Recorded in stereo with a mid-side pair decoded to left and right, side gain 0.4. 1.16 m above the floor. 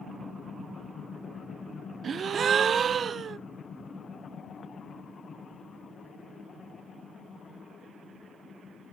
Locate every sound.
2.0 s a gasp: 50° right, 0.6 m